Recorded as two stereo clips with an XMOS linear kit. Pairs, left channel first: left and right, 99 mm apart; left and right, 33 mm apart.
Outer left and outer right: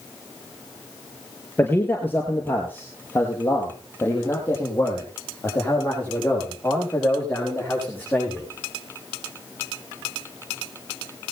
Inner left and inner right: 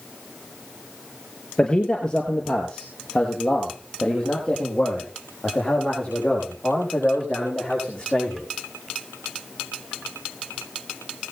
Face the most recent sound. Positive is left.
turn(degrees=20)  # may be behind; listen again after turning